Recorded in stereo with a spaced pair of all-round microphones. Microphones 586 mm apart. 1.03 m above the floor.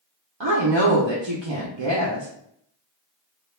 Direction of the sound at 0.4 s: 50° right (ahead or behind).